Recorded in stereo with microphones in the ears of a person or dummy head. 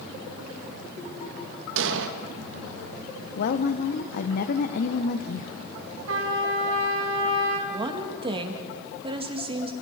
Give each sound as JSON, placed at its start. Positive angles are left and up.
{"t": 1.8, "sound": "an explosion", "side_deg": -70, "distance_m": 1.6}
{"t": 3.4, "sound": "a woman speaking", "side_deg": 60, "distance_m": 0.9}
{"t": 6.1, "sound": "a trumpet", "side_deg": -85, "distance_m": 3.0}
{"t": 7.7, "sound": "a woman speaking", "side_deg": -25, "distance_m": 2.0}